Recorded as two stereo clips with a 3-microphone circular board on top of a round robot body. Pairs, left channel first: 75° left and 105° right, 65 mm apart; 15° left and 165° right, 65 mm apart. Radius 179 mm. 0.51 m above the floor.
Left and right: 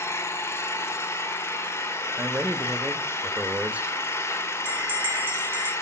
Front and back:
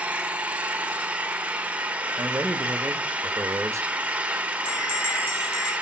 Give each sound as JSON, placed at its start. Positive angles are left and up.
{"t": 0.0, "sound": "an engine running", "azimuth_deg": 125, "distance_m": 1.4}
{"t": 2.2, "sound": "a man speaking", "azimuth_deg": -165, "distance_m": 1.2}
{"t": 4.7, "sound": "a bell", "azimuth_deg": -40, "distance_m": 3.5}